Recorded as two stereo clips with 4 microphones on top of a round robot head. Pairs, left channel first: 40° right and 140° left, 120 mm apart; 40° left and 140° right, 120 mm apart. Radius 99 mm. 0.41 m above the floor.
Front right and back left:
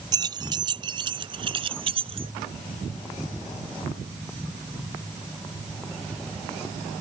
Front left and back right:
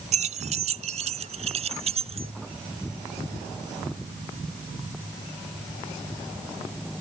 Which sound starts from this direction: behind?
Keys jangling, at 0.1 s.